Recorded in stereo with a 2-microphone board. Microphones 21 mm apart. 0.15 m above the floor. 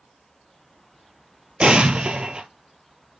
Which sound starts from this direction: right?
An explosion, at 1.6 s.